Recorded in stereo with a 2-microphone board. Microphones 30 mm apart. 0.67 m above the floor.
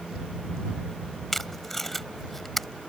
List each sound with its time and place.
1.3 s tape being pulled: 5° left (ahead or behind)